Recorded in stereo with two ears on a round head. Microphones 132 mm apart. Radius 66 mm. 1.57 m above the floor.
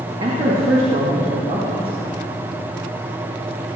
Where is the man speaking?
40° right (ahead or behind), 2.0 m.